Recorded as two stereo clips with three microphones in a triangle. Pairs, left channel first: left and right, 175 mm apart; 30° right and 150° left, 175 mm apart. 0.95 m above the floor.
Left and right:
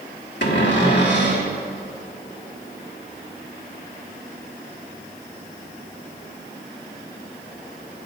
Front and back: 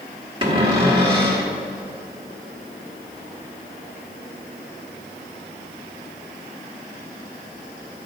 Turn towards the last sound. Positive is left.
turn(degrees=90)